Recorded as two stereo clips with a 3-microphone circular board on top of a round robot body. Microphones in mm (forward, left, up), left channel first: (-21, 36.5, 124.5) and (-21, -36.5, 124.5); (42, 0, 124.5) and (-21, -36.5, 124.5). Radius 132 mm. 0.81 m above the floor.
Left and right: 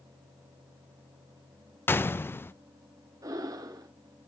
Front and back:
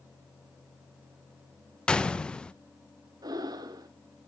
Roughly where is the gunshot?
Left.